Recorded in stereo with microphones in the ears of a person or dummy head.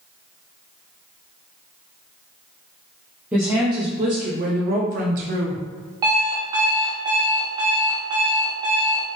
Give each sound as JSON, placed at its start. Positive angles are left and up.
{"t": 3.3, "sound": "a woman speaking", "side_deg": -5, "distance_m": 0.7}
{"t": 6.0, "sound": "an alarm clock", "side_deg": -20, "distance_m": 0.9}